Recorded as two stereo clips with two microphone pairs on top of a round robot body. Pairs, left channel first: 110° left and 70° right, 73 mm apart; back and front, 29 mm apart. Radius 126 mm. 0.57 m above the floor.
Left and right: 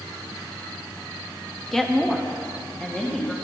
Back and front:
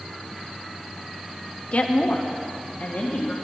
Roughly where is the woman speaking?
Behind.